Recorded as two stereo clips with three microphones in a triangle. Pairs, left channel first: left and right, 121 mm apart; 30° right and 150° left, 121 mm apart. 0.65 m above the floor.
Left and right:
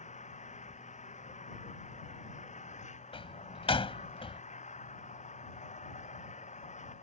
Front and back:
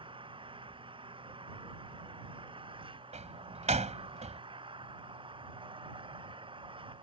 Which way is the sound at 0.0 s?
105° left.